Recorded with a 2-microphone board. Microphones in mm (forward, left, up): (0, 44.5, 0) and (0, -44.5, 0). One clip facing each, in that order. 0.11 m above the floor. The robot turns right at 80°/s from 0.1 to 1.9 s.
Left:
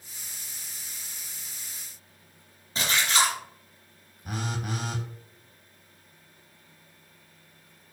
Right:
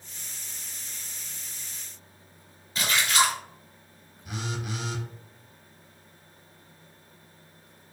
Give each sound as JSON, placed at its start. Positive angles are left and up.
{"t": 2.8, "sound": "a splash", "side_deg": 30, "distance_m": 1.6}
{"t": 4.2, "sound": "a phone buzzing", "side_deg": 45, "distance_m": 0.8}